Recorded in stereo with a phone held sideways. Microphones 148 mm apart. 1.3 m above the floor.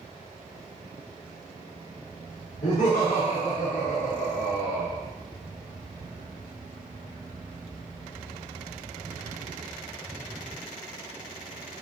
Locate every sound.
2.6 s laughter: 65° left (ahead or behind), 1.4 m